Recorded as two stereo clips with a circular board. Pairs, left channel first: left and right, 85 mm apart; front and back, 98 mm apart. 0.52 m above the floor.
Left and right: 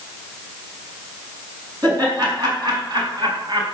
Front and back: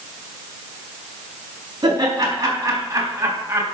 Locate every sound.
1.8 s laughter: 130° right, 5 m; by 3.6 s 115° right, 3 m